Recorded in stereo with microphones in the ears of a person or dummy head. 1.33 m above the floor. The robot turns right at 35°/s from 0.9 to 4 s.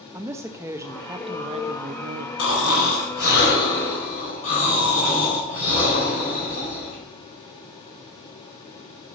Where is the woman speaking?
165° right, 0.6 m; by 2.3 s 120° right, 0.6 m.